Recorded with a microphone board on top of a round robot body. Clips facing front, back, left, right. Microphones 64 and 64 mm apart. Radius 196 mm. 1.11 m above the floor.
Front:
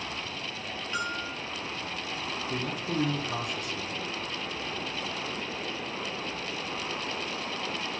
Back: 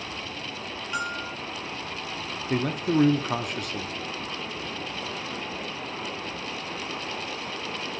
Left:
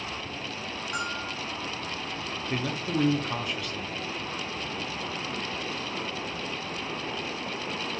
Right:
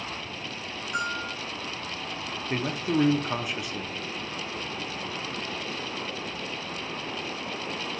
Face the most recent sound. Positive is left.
turn(degrees=-160)